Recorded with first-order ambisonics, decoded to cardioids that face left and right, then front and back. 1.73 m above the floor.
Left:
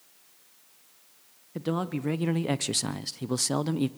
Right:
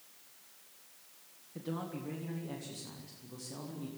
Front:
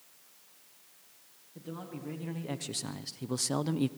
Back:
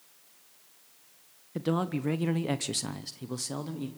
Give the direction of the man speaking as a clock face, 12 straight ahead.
7 o'clock.